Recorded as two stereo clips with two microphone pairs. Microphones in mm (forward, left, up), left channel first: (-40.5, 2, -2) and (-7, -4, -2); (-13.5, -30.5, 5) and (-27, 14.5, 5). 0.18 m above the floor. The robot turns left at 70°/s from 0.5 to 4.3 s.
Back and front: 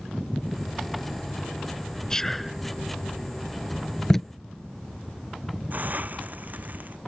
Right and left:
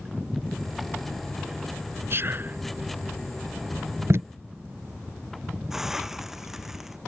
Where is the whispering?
105° left; by 2.6 s 70° left.